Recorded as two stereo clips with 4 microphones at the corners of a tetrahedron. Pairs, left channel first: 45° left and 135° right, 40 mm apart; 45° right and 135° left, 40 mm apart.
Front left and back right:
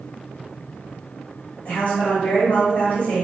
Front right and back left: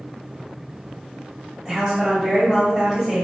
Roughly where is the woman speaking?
Ahead left.